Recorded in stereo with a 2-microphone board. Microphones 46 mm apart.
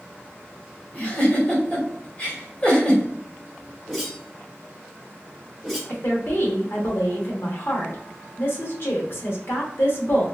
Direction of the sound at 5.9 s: 55° left (ahead or behind).